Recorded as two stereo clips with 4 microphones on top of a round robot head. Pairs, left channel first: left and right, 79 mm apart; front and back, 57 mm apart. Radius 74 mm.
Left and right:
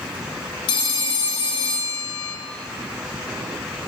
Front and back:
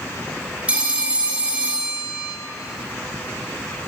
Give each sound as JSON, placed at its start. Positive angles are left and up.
{"t": 0.7, "sound": "a phone ringing", "azimuth_deg": 110, "distance_m": 1.7}